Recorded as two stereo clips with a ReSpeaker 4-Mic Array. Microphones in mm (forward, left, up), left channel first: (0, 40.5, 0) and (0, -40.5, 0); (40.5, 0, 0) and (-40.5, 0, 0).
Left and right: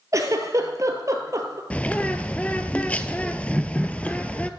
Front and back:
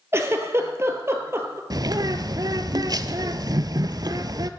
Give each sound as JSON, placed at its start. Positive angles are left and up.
{"t": 0.1, "sound": "a giggle", "azimuth_deg": -130, "distance_m": 1.5}
{"t": 1.7, "sound": "a bird", "azimuth_deg": 160, "distance_m": 0.6}